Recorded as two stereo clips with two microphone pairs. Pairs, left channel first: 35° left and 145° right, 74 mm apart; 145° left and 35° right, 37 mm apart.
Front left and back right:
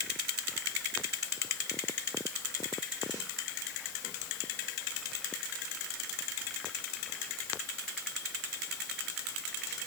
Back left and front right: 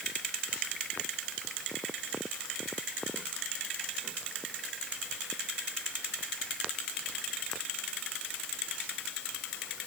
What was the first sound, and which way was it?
Only background noise.